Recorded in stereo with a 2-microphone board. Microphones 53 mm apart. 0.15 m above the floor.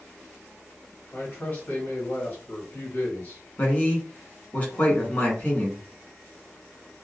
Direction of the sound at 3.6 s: 35° left (ahead or behind).